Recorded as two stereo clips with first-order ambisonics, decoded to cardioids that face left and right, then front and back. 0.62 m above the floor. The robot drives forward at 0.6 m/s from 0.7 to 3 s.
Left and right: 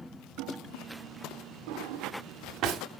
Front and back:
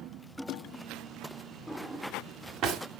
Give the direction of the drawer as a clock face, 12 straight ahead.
3 o'clock.